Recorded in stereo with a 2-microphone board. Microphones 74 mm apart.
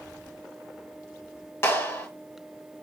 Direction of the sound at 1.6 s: 35° left (ahead or behind).